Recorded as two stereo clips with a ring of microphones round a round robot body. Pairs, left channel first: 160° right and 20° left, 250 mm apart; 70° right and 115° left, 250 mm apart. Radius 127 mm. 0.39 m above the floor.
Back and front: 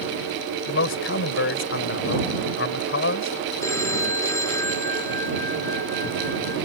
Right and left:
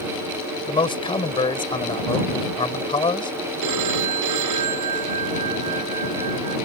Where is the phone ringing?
125° left.